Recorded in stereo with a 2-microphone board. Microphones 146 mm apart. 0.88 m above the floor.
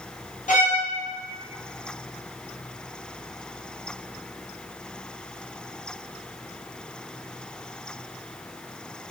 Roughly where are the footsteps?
I don't hear footsteps.